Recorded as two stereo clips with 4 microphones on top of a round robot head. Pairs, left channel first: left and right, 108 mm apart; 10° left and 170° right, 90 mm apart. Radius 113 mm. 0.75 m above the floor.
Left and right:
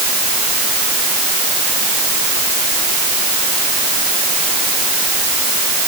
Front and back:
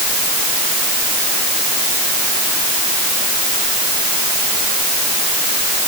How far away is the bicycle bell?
I don't hear a bicycle bell.